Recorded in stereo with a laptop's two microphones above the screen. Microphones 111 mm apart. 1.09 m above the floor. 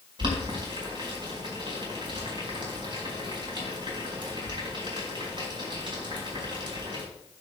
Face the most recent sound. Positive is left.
turn(degrees=-45)  # may be behind; listen again after turning